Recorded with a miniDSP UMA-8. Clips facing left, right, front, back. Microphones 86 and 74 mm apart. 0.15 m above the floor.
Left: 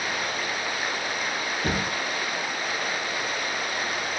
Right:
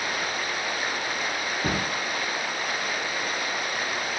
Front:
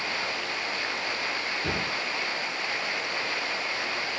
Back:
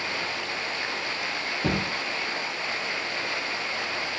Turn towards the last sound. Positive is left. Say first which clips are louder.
# even, back 5 dB
turn(degrees=-160)